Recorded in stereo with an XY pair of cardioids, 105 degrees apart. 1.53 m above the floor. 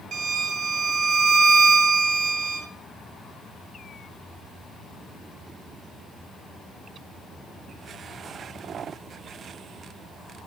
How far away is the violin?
About 1.2 m.